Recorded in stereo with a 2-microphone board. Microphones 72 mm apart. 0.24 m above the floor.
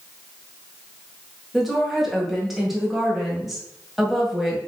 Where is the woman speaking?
Centre (ahead or behind), 1.5 m.